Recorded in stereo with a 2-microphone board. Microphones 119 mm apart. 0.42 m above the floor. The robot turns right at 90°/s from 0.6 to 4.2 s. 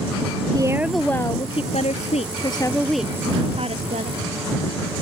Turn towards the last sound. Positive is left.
turn(degrees=-70)